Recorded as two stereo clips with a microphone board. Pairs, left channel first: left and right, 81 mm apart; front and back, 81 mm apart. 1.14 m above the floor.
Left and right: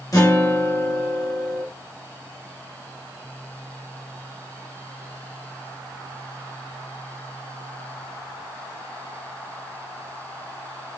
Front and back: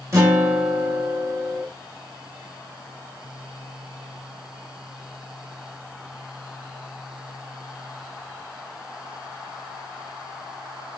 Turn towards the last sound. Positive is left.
turn(degrees=130)